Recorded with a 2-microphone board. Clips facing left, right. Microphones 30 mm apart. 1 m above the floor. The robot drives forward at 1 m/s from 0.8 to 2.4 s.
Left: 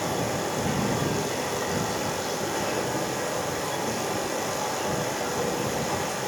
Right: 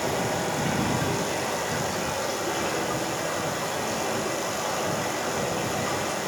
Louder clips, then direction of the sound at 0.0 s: Right 1 dB; 70° right (ahead or behind).